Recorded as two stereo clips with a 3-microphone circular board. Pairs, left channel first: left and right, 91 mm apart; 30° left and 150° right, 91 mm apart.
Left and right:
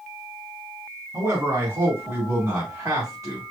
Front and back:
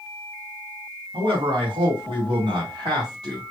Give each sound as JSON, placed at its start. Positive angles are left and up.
{"t": 1.1, "sound": "a man speaking", "azimuth_deg": -140, "distance_m": 3.0}